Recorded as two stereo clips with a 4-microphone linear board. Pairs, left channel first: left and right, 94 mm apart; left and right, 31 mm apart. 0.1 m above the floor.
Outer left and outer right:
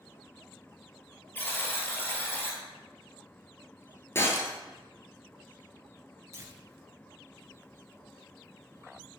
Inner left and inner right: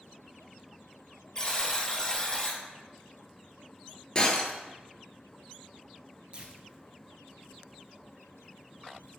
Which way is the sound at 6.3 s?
30° right (ahead or behind).